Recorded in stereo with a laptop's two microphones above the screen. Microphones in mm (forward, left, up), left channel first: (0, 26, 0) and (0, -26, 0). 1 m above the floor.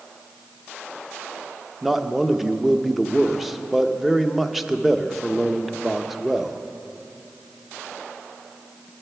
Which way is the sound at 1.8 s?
5° right (ahead or behind).